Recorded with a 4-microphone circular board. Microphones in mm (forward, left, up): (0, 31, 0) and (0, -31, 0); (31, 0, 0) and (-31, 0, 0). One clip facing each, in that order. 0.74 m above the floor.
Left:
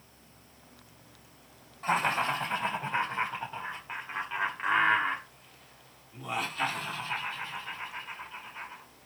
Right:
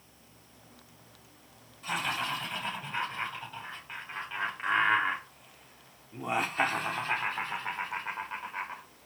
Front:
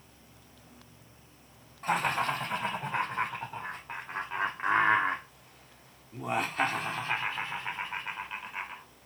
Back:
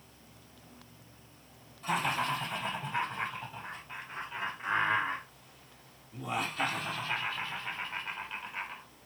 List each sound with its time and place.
1.8 s laughter: 45° left, 4 m; by 8.8 s 80° right, 3.5 m